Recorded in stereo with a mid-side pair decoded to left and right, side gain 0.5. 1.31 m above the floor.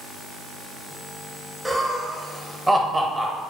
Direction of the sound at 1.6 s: 5° right.